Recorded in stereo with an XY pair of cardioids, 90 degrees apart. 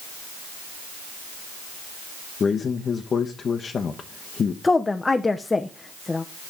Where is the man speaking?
50° left, 0.9 m.